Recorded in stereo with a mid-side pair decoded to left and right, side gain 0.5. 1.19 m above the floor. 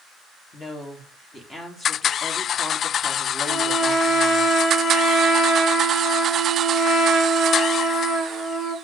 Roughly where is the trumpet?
Left.